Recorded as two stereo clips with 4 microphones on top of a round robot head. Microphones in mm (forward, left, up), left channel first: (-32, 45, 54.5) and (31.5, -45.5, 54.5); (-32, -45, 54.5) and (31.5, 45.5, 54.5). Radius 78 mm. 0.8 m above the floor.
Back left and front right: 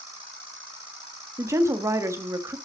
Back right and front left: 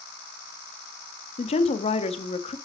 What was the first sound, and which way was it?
A woman speaking, 120° right.